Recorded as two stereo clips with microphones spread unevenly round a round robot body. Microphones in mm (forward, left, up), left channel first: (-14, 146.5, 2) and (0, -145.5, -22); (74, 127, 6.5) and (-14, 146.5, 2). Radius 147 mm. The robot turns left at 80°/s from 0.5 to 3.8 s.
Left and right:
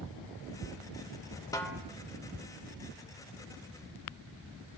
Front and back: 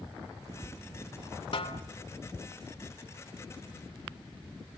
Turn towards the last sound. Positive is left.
turn(degrees=-170)